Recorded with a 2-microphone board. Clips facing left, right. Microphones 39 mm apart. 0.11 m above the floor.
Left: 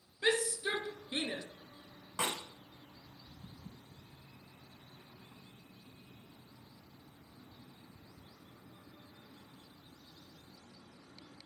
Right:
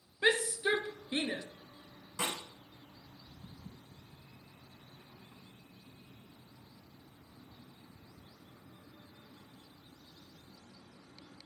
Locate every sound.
0.2 s a shout: 25° right (ahead or behind), 1.2 m
2.2 s a snare drum: 40° left (ahead or behind), 5.5 m